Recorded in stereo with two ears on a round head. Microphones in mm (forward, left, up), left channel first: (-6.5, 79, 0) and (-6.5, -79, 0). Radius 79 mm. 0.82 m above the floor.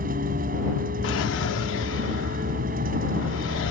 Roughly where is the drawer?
Left.